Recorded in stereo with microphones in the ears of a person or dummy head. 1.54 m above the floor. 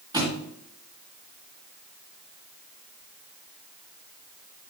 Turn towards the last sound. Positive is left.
turn(degrees=-20)  # may be behind; listen again after turning